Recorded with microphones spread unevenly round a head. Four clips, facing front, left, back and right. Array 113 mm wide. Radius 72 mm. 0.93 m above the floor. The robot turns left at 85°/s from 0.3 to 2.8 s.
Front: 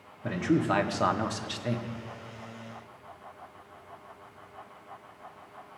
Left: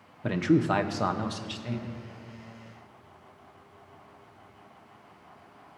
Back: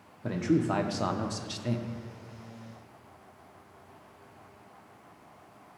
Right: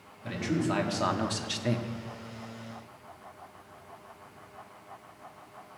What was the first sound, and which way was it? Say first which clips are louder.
A man speaking: left 6 dB, front 1 dB; 70° left.